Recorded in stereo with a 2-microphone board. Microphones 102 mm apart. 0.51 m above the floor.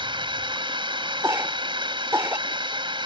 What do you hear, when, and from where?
0.0 s a drone: 55° right (ahead or behind)
1.2 s a cough: 25° right (ahead or behind)